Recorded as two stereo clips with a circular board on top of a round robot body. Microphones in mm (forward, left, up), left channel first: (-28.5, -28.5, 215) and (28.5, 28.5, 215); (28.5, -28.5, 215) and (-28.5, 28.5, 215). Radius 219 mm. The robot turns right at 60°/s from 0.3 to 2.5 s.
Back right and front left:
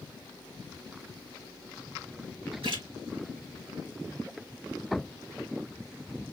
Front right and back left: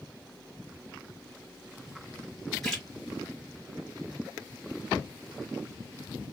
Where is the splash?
40° left, 3 m.